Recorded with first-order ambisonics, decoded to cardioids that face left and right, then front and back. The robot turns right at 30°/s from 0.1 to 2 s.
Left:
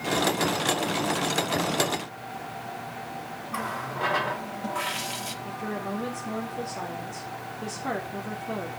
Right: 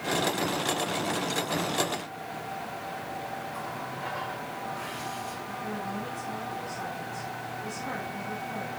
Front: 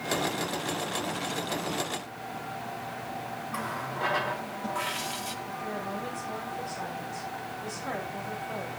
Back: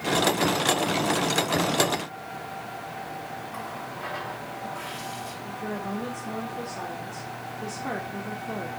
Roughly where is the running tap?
Left.